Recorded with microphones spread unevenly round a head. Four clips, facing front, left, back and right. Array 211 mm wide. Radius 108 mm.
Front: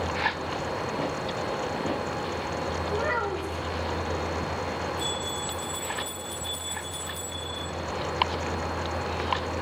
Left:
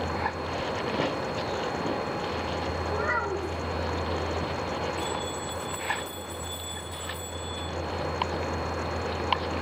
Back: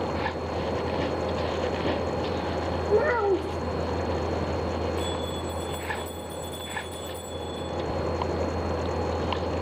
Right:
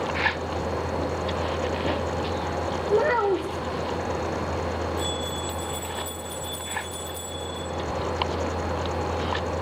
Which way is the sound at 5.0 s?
Straight behind.